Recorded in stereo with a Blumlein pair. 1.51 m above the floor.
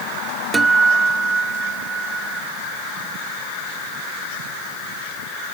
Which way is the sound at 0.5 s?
15° right.